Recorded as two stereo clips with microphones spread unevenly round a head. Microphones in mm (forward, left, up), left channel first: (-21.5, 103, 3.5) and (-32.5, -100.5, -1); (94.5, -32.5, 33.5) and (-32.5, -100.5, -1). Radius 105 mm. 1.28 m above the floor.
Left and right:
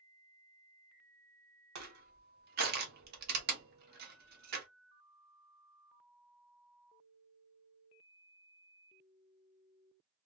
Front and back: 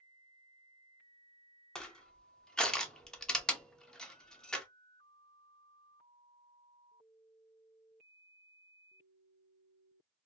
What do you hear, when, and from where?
1.8 s crushing: 70° right, 0.8 m